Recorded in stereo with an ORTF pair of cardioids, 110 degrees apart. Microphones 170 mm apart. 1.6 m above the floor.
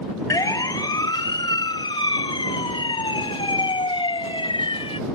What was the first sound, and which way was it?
A siren, 20° left.